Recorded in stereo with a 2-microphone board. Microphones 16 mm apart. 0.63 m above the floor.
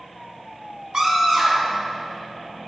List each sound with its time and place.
0.9 s a scream: 55° right (ahead or behind), 5.5 m